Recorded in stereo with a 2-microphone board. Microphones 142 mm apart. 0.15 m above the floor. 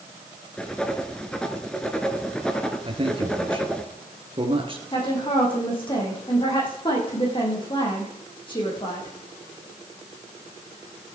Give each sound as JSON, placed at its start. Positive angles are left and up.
{"t": 0.6, "sound": "writing", "side_deg": 5, "distance_m": 1.6}
{"t": 2.9, "sound": "a man speaking", "side_deg": -40, "distance_m": 3.0}
{"t": 4.9, "sound": "a woman speaking", "side_deg": 35, "distance_m": 7.5}